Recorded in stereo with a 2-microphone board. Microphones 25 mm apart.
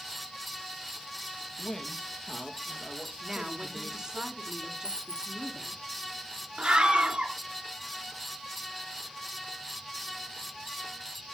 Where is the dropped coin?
35° right (ahead or behind), 1.8 m.